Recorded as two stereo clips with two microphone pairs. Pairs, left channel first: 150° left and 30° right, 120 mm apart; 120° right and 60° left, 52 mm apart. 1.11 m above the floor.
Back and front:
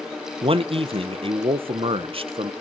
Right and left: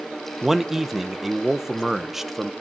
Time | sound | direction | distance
0.4 | a man speaking | 20° right | 0.7 m